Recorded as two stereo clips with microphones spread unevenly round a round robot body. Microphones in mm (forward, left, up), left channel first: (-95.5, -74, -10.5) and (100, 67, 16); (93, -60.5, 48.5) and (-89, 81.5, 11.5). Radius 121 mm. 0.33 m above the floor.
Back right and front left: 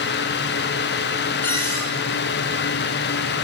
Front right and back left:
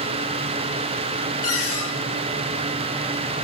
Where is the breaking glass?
I don't hear breaking glass.